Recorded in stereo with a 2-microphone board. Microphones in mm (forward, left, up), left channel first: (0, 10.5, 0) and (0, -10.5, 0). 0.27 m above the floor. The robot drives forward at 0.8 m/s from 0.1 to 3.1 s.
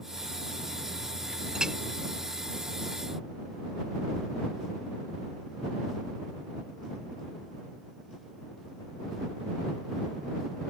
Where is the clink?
35° right (ahead or behind); by 1.8 s 40° right (ahead or behind).